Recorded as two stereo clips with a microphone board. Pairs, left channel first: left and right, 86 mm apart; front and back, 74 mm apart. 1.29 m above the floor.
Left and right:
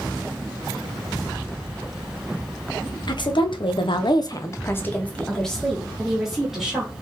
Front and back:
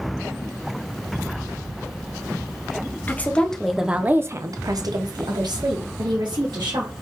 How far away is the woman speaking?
About 0.7 m.